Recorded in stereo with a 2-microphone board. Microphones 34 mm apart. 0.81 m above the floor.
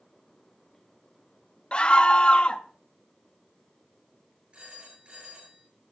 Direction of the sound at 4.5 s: 35° right (ahead or behind).